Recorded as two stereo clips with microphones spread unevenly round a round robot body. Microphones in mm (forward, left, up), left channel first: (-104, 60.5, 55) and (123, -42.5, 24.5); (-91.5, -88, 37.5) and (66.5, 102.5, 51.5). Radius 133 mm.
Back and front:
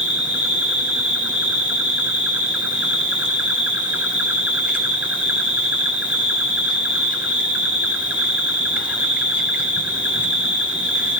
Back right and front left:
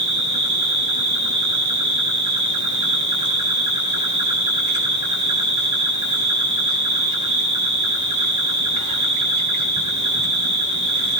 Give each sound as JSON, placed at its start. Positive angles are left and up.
{"t": 0.0, "sound": "an insect", "azimuth_deg": 60, "distance_m": 7.0}